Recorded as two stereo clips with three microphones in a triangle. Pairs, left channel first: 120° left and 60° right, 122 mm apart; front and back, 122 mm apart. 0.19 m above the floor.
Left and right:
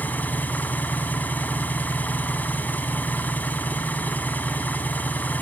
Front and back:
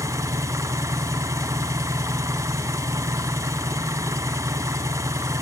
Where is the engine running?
175° left, 0.9 m.